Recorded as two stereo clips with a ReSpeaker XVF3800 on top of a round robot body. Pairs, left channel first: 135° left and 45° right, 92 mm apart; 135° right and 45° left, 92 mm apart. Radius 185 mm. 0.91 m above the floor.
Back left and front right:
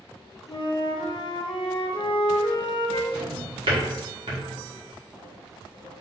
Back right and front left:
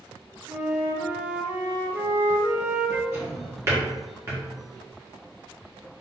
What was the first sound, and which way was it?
A flute, 115° left.